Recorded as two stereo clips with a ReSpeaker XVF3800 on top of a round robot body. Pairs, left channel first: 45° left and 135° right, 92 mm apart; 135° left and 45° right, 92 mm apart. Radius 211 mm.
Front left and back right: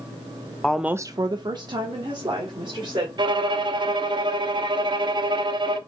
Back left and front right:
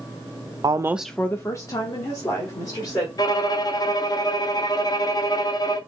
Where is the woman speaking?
35° right, 0.7 m; by 3.1 s straight behind, 3 m.